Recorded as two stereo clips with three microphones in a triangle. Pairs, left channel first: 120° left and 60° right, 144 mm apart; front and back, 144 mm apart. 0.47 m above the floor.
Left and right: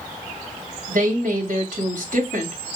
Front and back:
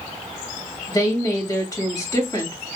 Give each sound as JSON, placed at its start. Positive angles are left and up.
{"t": 0.9, "sound": "a woman speaking", "azimuth_deg": -60, "distance_m": 2.0}